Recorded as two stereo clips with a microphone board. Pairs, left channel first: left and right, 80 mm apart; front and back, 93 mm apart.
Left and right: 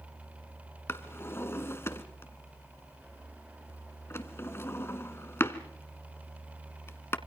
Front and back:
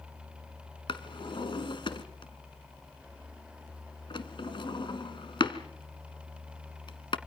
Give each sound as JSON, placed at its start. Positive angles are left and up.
{"t": 0.9, "sound": "a drawer", "azimuth_deg": 30, "distance_m": 1.3}